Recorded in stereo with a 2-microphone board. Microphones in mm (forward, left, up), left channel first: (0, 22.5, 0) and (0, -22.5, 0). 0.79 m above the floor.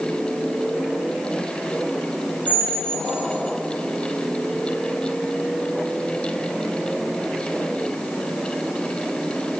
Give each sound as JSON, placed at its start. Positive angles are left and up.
{"t": 2.5, "sound": "a squeak", "side_deg": -45, "distance_m": 1.0}